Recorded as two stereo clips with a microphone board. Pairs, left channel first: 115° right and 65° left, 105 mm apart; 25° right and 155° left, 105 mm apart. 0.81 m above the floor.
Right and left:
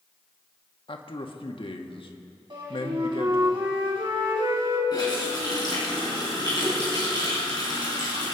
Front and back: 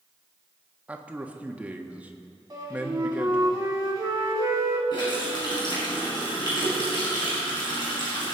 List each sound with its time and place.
0.9 s a man speaking: 130° right, 1.3 m
2.5 s a flute: 105° left, 3.5 m
4.9 s a running tap: 65° right, 5 m